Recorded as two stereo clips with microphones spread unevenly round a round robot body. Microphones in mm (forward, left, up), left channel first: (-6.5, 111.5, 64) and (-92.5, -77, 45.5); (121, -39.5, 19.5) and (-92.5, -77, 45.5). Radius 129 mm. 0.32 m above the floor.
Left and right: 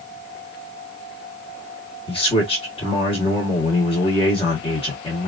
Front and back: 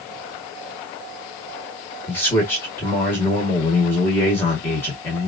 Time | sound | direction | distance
2.1 | a man speaking | 50° left | 1.3 m